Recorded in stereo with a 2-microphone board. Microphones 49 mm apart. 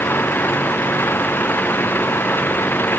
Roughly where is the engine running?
Left.